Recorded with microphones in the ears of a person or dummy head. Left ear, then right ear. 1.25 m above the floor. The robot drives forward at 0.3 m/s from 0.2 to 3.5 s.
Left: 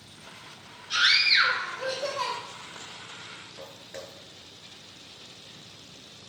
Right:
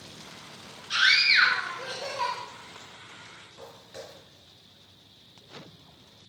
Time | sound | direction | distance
0.9 | a scream | 35° right (ahead or behind) | 1.2 m
3.6 | footsteps | centre (ahead or behind) | 1.3 m